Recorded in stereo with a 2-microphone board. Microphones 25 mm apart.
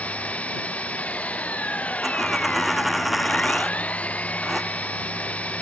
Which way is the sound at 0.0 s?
75° left (ahead or behind).